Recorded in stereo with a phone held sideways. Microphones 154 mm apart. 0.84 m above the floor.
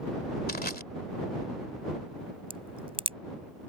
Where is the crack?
35° right (ahead or behind).